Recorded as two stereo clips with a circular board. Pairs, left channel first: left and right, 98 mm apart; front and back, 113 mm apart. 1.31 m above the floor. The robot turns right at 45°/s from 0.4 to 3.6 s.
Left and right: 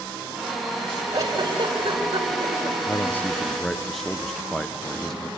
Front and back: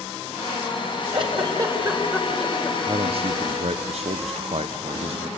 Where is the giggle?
145° right, 3.5 m; by 2.8 s 70° right, 3.5 m.